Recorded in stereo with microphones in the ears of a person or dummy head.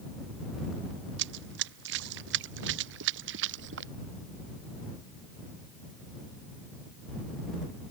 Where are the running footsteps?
75° right (ahead or behind).